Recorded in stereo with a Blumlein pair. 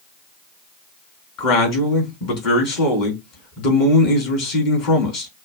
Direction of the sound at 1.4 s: 40° left.